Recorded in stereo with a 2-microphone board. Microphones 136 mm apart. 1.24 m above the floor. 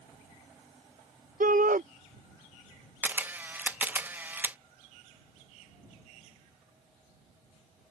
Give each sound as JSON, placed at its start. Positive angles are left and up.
{"t": 1.4, "sound": "a shout", "side_deg": -85}
{"t": 3.0, "sound": "a camera shutter", "side_deg": -15}